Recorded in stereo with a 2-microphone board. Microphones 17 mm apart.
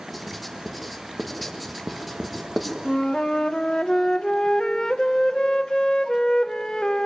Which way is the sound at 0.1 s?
5° left (ahead or behind).